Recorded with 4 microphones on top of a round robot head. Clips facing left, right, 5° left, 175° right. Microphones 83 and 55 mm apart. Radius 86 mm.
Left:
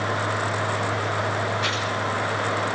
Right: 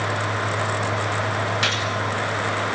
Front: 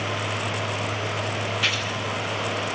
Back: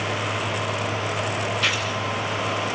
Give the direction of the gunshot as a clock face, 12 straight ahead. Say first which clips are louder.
Right 2 dB, back 1 dB; 3 o'clock.